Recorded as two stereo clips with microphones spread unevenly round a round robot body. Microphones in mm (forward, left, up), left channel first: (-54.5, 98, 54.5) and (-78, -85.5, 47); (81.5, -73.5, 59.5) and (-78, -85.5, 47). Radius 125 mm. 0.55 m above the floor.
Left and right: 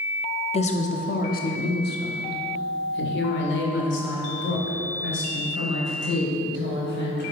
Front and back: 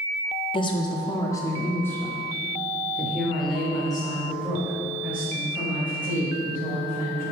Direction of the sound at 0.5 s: 50° left.